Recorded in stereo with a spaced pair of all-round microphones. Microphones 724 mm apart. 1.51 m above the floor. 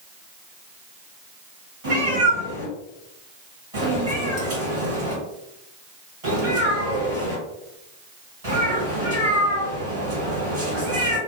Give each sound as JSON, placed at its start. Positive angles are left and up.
{"t": 1.8, "sound": "a cat meowing", "side_deg": -50, "distance_m": 1.8}